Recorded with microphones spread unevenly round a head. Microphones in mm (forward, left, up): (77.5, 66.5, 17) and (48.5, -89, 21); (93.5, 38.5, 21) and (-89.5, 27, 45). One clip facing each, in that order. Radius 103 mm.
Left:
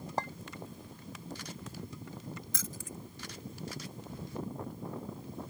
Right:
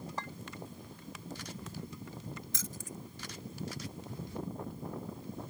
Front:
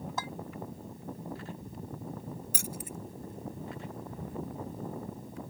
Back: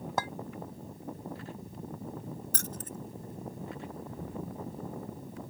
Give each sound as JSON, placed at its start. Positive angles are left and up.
{"t": 0.2, "sound": "a clink", "azimuth_deg": 145}
{"t": 2.5, "sound": "keys jangling", "azimuth_deg": 85}